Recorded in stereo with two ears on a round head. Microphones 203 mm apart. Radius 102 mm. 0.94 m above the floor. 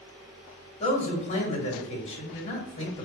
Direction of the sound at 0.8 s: 30° left (ahead or behind).